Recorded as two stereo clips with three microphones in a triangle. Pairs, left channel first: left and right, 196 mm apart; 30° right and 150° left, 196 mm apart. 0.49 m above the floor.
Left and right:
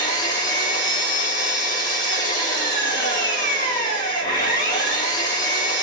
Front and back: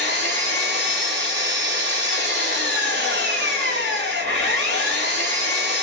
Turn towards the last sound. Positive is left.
turn(degrees=155)